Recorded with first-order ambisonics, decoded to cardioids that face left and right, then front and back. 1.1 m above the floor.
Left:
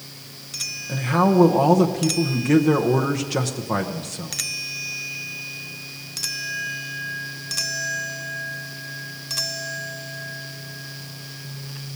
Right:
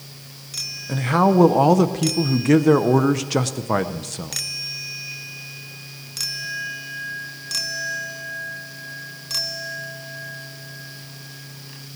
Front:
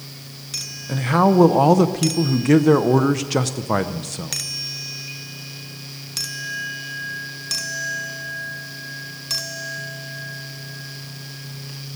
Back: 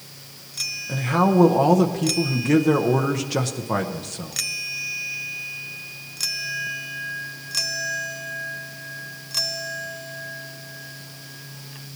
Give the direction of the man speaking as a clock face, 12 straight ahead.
2 o'clock.